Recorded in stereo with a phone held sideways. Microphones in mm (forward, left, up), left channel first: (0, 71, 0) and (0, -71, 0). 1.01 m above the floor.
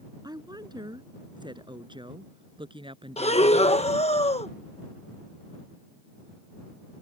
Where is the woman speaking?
30° right (ahead or behind); by 3.9 s 40° right (ahead or behind).